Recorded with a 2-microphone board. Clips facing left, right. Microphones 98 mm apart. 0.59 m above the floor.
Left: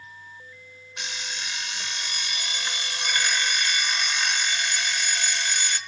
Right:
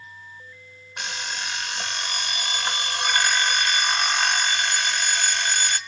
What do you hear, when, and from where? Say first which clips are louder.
1.0 s an alarm clock: right 4 dB; 55° right (ahead or behind), 0.7 m